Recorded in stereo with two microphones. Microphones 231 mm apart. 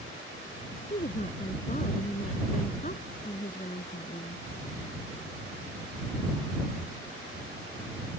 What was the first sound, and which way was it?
A woman speaking, 35° left (ahead or behind).